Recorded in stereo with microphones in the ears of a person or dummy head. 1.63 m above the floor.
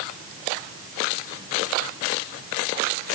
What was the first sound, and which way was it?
Only background noise.